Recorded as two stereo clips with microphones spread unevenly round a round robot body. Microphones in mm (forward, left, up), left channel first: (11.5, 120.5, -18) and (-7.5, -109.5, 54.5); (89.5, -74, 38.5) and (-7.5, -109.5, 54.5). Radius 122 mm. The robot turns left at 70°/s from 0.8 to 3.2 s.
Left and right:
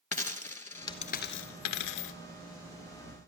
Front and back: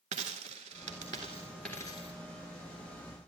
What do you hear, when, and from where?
0.1 s a dropped coin: 170° left, 0.6 m; by 2.1 s 75° left, 0.6 m